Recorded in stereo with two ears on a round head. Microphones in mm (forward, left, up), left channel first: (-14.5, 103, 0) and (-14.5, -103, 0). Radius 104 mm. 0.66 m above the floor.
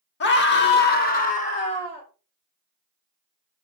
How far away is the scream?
About 1.4 m.